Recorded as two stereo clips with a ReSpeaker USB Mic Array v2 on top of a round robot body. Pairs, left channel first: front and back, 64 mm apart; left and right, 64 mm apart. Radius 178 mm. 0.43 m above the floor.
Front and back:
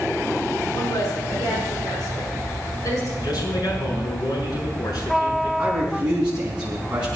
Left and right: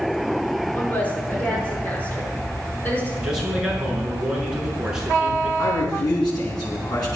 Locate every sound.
0.7 s a woman speaking: 25° left, 6.5 m
3.2 s a man speaking: 10° right, 7.5 m
5.6 s a man speaking: 105° left, 5 m